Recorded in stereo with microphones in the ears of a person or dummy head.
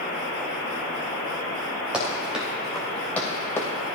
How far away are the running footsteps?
About 4 m.